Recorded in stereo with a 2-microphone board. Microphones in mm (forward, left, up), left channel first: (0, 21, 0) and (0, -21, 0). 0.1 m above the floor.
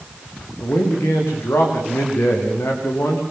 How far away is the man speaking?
About 9 m.